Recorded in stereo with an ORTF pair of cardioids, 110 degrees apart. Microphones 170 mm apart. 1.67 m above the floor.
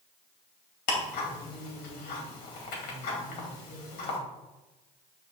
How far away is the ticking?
About 2.5 m.